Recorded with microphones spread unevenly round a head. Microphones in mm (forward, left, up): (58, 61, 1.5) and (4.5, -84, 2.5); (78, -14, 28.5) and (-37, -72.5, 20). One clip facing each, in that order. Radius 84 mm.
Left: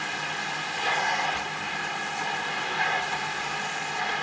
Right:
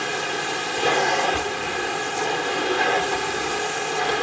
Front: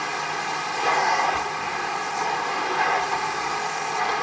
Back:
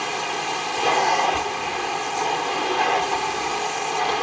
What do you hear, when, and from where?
0.0 s a machine running: 85° right